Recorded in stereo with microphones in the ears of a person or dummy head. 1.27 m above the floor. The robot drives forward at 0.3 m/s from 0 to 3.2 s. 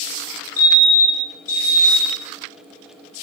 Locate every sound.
0.6 s a fire alarm: 35° left (ahead or behind), 2.0 m; by 2.2 s 30° left (ahead or behind), 2.5 m